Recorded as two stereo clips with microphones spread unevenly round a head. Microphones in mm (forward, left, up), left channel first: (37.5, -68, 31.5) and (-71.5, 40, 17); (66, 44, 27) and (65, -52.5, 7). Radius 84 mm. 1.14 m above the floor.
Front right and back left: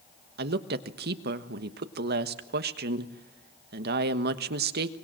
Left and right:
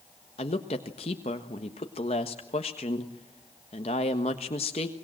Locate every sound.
0.4 s a woman speaking: 140° left, 1.3 m